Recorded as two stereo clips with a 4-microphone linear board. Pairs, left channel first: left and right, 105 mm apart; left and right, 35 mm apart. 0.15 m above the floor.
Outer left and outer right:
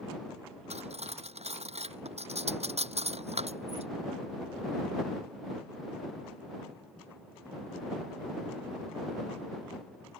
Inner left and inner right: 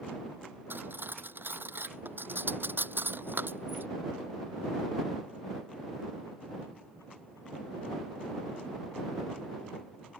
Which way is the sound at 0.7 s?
70° right (ahead or behind).